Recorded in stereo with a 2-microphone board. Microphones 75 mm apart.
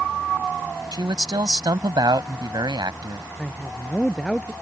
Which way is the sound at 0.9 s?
70° right (ahead or behind).